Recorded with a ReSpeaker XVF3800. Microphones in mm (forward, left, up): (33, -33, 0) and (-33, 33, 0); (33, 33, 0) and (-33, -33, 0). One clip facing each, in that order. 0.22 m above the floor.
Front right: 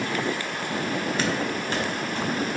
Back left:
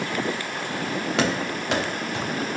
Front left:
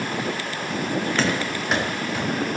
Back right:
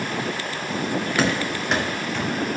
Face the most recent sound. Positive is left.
turn(degrees=125)